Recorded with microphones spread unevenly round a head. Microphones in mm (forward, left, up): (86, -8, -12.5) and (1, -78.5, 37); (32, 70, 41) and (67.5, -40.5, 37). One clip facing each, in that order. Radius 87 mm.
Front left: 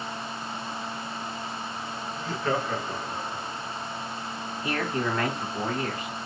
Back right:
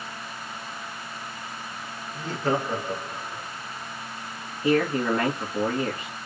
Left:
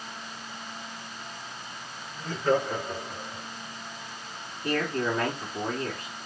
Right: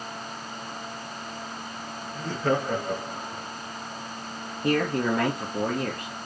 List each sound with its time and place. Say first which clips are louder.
2.1 s laughter: back right 3 dB, left 1 dB; 95° right, 1.5 m; by 3.5 s 25° right, 1.7 m
4.6 s a man speaking: back right 7 dB, right 4 dB; 70° right, 1.4 m